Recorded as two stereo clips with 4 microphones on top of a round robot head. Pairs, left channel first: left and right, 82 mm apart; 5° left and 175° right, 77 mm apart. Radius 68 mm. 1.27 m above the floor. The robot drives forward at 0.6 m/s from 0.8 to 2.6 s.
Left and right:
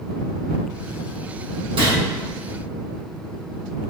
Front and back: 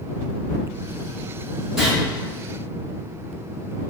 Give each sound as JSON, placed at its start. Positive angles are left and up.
{"t": 1.8, "sound": "a gunshot", "azimuth_deg": -90, "distance_m": 1.2}